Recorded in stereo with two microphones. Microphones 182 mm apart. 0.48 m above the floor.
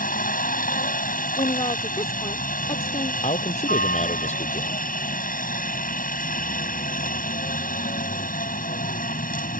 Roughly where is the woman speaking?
Left.